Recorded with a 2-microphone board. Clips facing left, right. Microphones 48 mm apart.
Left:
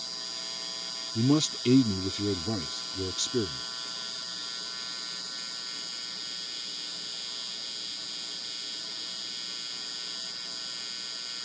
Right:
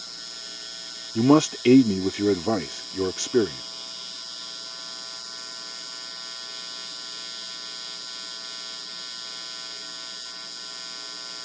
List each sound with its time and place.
1.1 s a man speaking: 65° right (ahead or behind)